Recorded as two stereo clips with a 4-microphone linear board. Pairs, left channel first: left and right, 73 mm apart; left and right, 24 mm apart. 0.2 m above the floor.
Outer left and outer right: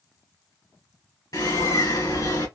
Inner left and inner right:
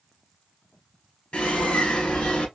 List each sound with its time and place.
1.3 s a bird: 60° left (ahead or behind), 1.7 m